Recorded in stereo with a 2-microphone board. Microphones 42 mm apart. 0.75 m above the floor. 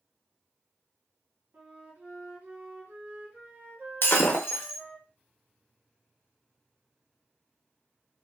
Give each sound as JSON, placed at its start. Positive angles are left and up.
{"t": 1.5, "sound": "a flute", "side_deg": -50, "distance_m": 1.1}
{"t": 4.0, "sound": "breaking glass", "side_deg": 55, "distance_m": 0.6}